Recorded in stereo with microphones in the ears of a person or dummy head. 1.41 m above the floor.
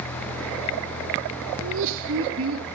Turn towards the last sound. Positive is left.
turn(degrees=-70)  # may be behind; listen again after turning